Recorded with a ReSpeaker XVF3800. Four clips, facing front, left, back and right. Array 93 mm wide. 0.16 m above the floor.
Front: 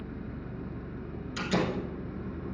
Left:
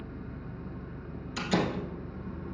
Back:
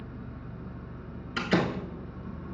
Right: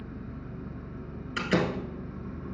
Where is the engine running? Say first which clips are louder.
Right 1 dB, front 3 dB; 20° right, 2.5 m.